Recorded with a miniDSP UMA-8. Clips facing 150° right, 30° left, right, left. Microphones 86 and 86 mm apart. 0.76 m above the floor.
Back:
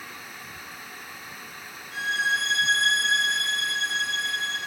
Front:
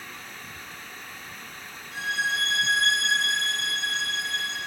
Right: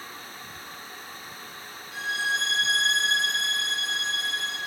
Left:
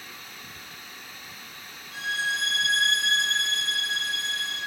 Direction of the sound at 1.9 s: 70° left.